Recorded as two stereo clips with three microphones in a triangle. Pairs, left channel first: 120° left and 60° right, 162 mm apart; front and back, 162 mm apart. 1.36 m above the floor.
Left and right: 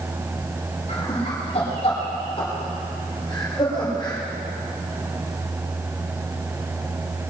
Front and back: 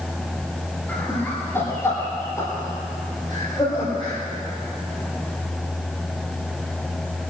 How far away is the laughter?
About 5 m.